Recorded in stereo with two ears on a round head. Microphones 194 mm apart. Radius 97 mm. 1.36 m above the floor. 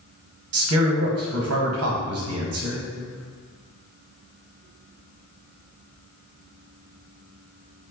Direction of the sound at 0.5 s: 75° right (ahead or behind).